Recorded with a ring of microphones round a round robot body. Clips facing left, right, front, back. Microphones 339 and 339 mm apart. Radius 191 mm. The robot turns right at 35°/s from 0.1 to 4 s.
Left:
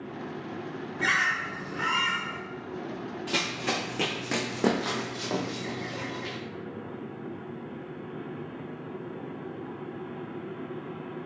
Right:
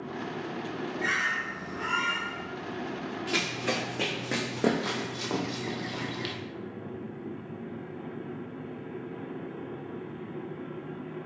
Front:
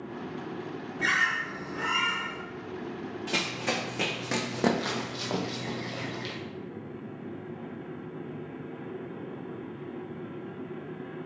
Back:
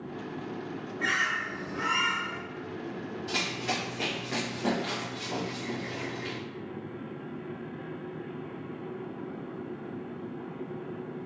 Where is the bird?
55° left, 0.8 m; by 2.4 s 105° left, 0.8 m.